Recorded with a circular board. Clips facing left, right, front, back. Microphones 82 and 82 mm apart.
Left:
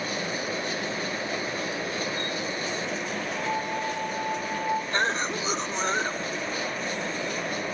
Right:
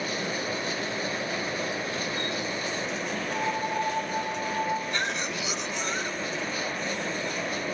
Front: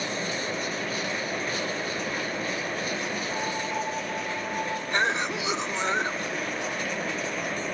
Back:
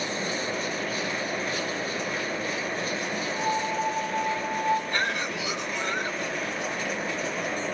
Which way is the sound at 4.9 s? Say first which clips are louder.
Left 4 dB, front 2 dB; 55° left.